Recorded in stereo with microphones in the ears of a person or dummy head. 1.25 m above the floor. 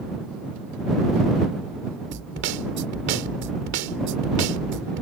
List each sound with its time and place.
2.1 s a snare drum: 65° right (ahead or behind)